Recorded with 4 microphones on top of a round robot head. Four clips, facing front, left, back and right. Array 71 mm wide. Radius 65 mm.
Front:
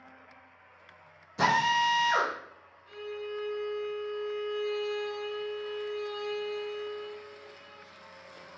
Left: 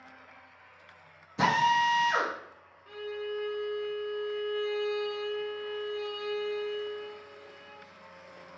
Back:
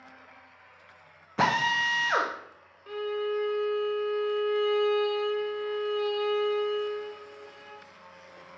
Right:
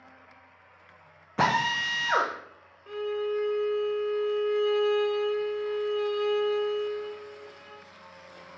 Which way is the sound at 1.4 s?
130° right.